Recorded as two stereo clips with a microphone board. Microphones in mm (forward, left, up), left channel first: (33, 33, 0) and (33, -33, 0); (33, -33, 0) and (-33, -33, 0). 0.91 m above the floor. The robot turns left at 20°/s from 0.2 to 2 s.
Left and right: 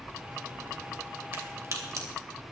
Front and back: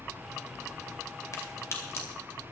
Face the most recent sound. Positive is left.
turn(degrees=-50)